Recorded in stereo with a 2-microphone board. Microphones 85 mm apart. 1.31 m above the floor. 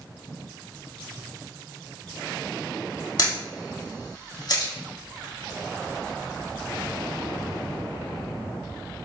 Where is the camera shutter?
50° left (ahead or behind), 1.5 m.